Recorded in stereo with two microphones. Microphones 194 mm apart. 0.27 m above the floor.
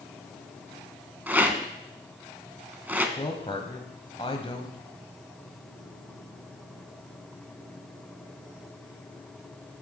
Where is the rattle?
10° right (ahead or behind), 0.7 m.